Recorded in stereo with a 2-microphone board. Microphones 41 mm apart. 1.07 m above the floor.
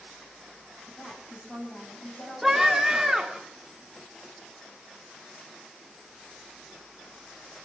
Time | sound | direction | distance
0.9 | a woman speaking | 25° left (ahead or behind) | 8 m
2.4 | a scream | 10° right (ahead or behind) | 3 m